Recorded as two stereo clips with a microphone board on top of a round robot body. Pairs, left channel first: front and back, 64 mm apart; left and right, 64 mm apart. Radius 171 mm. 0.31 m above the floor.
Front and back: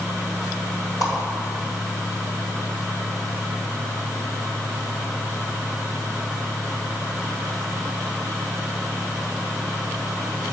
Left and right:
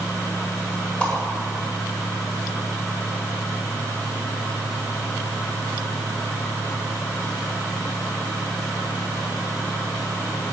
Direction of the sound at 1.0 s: 20° left.